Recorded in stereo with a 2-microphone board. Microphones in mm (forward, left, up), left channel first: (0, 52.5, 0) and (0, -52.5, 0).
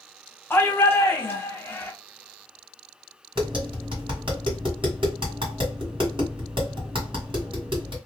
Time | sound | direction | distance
0.5 | a shout | 20° left (ahead or behind) | 0.8 m
3.4 | tapping | 60° right (ahead or behind) | 1.9 m